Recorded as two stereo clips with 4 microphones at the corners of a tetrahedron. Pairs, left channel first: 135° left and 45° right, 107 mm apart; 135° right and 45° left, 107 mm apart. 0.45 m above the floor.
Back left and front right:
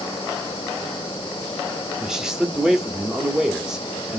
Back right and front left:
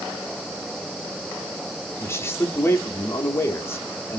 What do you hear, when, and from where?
2.0 s a man speaking: 125° right, 0.7 m